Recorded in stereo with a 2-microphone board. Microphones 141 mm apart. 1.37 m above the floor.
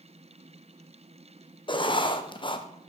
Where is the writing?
35° left (ahead or behind), 0.7 m.